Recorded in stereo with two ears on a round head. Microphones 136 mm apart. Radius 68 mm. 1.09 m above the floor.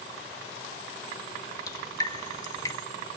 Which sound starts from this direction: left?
Dripping, at 1.7 s.